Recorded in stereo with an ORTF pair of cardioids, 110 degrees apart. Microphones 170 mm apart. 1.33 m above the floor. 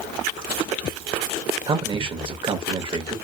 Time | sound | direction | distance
1.7 | a man speaking | 30° right | 1.1 m